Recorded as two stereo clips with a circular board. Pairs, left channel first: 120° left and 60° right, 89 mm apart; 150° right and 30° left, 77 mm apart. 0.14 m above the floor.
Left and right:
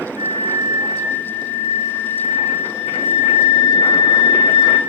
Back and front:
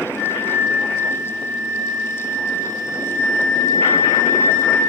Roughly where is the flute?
Right.